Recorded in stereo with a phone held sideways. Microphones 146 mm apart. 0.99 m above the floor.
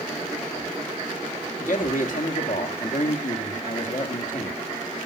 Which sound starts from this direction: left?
A man speaking, at 1.6 s.